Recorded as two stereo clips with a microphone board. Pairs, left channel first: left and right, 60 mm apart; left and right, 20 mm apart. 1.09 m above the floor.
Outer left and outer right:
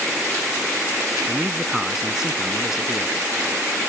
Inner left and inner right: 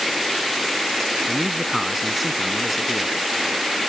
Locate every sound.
1.3 s a man speaking: 10° right (ahead or behind)